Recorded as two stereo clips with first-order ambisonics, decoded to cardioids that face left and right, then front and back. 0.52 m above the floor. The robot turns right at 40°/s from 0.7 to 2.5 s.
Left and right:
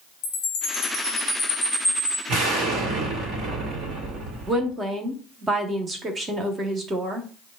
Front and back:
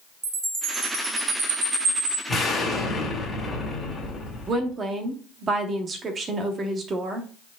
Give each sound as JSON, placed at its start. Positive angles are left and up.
{"t": 0.2, "sound": "a chime", "azimuth_deg": 125, "distance_m": 2.0}
{"t": 2.3, "sound": "an explosion", "azimuth_deg": -75, "distance_m": 1.5}
{"t": 4.5, "sound": "a woman speaking", "azimuth_deg": -145, "distance_m": 0.7}